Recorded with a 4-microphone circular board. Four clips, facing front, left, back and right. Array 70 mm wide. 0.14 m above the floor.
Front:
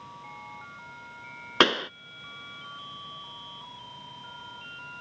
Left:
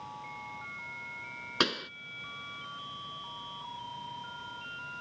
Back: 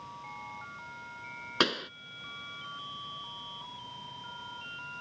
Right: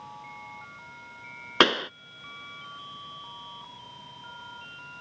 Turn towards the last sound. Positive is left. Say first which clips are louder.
# right 9 dB, front 7 dB
turn(degrees=-50)